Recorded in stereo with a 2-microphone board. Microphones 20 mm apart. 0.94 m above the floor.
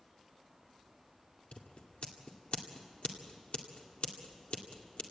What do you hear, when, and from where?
1.5 s scissors: 80° left, 2 m